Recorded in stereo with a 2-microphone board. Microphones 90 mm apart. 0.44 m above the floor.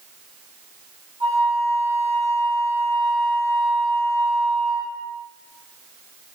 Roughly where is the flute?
Right.